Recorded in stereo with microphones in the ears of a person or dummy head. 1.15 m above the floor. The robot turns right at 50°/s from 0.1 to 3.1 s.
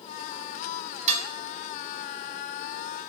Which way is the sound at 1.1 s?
40° right (ahead or behind).